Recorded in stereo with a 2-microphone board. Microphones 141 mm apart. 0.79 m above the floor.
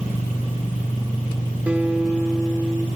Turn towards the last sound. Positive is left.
turn(degrees=-10)  # may be behind; listen again after turning